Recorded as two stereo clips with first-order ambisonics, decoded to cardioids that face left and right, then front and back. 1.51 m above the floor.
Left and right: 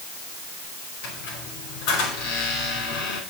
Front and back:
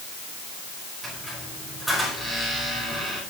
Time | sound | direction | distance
1.0 | a squeak | 85° left | 5 m